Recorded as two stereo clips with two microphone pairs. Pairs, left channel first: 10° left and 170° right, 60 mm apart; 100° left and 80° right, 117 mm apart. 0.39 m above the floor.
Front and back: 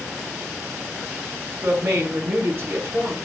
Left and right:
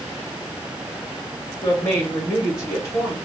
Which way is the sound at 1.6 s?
155° left.